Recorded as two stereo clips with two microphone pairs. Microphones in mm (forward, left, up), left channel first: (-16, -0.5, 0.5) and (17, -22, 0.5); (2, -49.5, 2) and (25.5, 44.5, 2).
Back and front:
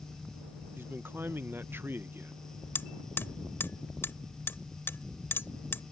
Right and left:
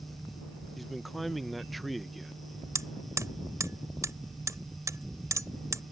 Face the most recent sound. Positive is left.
turn(degrees=135)